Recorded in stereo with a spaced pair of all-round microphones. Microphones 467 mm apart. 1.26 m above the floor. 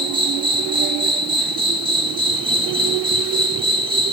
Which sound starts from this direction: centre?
An insect, at 0.0 s.